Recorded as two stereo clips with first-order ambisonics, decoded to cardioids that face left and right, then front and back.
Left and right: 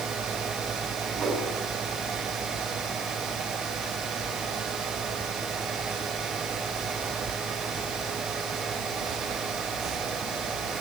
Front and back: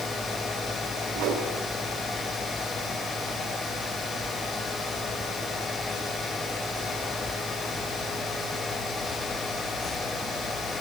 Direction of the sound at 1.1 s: 150° right.